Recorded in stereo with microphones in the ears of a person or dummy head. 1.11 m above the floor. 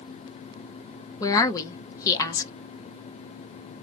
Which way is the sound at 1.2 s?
15° left (ahead or behind).